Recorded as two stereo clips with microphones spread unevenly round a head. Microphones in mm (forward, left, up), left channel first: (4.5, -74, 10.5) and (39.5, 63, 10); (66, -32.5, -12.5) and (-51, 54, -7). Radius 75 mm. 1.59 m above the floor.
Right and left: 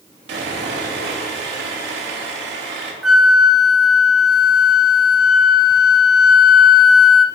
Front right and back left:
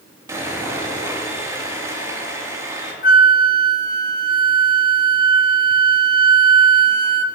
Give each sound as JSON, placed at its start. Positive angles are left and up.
{"t": 0.3, "sound": "sawing", "azimuth_deg": 75, "distance_m": 3.0}
{"t": 3.0, "sound": "a flute", "azimuth_deg": -10, "distance_m": 0.9}